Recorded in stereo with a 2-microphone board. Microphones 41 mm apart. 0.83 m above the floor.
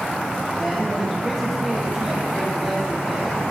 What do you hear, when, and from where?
0.6 s a man speaking: 10° right (ahead or behind), 3.5 m